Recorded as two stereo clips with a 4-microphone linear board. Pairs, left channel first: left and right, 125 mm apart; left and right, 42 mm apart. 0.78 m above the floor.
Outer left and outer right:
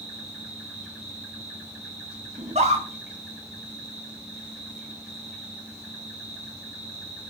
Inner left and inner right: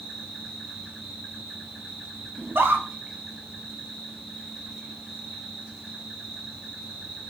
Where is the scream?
55° right (ahead or behind), 1.7 m.